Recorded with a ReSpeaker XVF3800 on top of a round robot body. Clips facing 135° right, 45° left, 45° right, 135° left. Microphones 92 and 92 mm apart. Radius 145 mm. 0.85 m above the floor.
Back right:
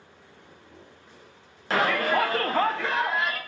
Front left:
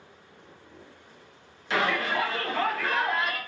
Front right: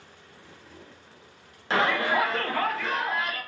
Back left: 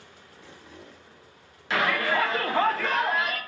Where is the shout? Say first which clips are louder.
Back right 3 dB, front right 1 dB; 95° right, 0.7 m; by 3.4 s 140° left, 0.7 m.